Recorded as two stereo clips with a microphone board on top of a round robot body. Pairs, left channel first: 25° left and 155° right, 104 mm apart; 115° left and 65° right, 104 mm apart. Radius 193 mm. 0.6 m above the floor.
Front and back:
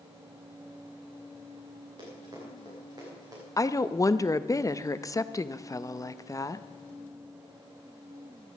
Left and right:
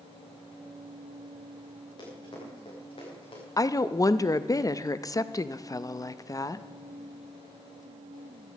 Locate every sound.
2.0 s running footsteps: 155° left, 7 m; by 3.4 s 145° left, 7 m
3.6 s a woman speaking: 70° left, 0.8 m